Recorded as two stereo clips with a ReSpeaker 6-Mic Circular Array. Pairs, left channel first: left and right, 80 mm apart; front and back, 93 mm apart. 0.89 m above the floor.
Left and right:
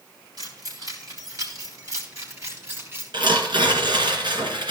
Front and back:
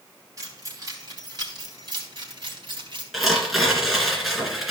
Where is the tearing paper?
90° right, 2.5 m.